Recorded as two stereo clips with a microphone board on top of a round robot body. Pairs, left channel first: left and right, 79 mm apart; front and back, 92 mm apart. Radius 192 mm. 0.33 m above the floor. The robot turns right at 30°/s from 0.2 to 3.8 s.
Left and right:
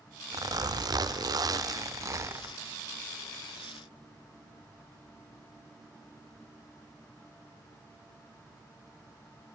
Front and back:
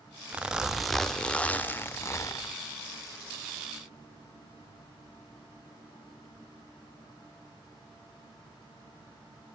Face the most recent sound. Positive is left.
turn(degrees=0)